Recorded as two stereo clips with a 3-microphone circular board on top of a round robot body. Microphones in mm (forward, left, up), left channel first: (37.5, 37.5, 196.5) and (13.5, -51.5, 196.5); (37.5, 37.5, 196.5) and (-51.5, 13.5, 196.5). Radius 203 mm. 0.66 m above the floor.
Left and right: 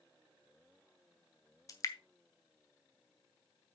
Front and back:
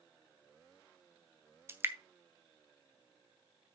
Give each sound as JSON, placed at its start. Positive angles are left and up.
{"t": 1.7, "sound": "dripping", "azimuth_deg": 130, "distance_m": 0.7}